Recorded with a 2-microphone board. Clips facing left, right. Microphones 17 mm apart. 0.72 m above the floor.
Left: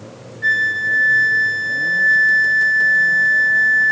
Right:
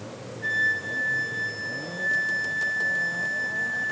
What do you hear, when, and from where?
0.4 s a flute: 40° left (ahead or behind), 2.5 m